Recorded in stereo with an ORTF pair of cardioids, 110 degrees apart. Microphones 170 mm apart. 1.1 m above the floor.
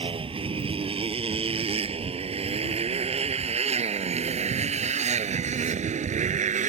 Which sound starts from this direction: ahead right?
A motorcycle, at 0.0 s.